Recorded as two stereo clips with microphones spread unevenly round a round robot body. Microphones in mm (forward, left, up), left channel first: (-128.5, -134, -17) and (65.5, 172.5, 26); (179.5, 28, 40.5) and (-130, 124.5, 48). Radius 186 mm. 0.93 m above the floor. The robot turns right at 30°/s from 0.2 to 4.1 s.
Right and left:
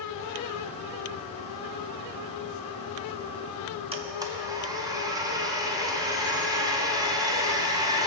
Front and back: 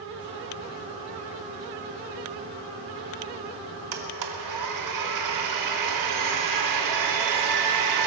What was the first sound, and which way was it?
A blender, 135° left.